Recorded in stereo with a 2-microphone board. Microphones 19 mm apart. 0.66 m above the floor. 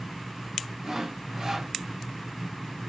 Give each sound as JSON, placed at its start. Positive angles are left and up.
{"t": 0.8, "sound": "sawing", "side_deg": -45, "distance_m": 1.1}